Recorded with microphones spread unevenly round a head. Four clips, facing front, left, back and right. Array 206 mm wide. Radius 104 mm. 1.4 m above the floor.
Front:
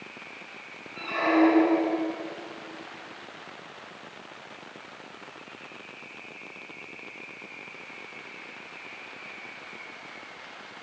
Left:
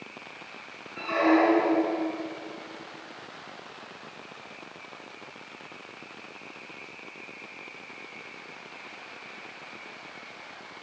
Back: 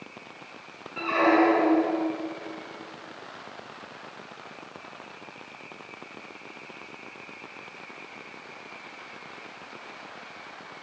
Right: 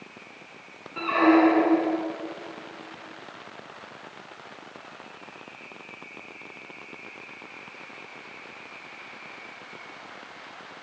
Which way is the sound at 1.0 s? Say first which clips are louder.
Right 3 dB, back 2 dB; 110° right.